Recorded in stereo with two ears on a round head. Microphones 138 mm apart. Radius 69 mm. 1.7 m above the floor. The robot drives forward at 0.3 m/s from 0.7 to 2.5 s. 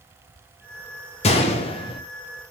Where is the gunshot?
40° left (ahead or behind), 0.7 m; by 2.0 s 35° left (ahead or behind), 0.7 m.